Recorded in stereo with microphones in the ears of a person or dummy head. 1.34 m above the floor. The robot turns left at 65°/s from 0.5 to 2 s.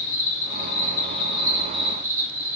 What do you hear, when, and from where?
0.0 s an insect: 75° left, 1.0 m; by 2.6 s 20° right, 1.0 m